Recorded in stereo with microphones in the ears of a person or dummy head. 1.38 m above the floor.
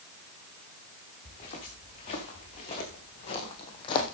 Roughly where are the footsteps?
Left.